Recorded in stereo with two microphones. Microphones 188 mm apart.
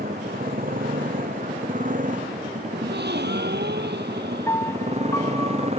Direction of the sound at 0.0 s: 50° right (ahead or behind).